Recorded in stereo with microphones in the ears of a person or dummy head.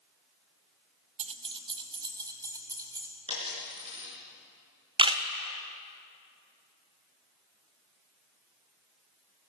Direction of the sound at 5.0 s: 20° right (ahead or behind).